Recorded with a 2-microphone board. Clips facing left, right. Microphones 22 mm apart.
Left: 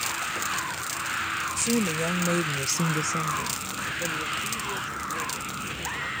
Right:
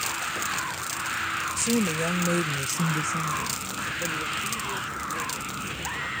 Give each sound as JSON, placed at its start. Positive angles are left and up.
{"t": 1.6, "sound": "a woman speaking", "side_deg": -5}